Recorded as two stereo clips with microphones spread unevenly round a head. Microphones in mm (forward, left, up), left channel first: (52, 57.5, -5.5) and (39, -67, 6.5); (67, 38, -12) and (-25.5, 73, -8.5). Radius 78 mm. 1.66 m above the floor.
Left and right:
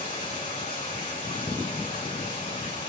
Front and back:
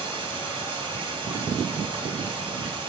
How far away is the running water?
About 4.5 m.